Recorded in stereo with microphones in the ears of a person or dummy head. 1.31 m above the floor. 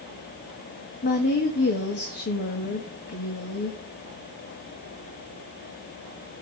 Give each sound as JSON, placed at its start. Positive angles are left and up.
{"t": 1.0, "sound": "a woman speaking", "side_deg": 60, "distance_m": 1.7}